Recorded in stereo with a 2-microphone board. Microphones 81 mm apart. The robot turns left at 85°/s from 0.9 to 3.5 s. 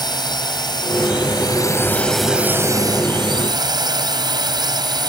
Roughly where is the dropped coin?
I don't hear a dropped coin.